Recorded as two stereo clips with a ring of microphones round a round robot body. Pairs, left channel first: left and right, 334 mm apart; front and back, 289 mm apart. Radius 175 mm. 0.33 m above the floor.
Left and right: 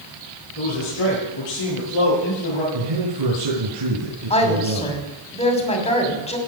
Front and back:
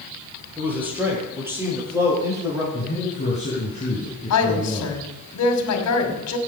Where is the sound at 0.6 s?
95° left, 7.5 m; by 2.6 s 100° left, 8.5 m.